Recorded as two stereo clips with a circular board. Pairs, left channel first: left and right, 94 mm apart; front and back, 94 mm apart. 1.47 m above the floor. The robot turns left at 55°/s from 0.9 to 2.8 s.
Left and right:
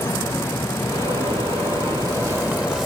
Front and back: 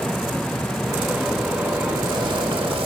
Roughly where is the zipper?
Right.